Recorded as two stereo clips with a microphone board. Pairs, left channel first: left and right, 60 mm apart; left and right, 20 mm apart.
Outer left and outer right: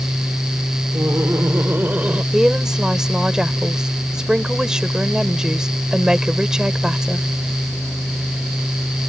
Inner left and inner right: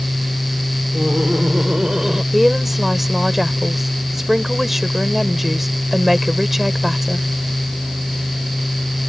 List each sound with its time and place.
0.9 s laughter: 50° right (ahead or behind); by 2.2 s 25° right (ahead or behind)
2.3 s a woman speaking: 10° right (ahead or behind)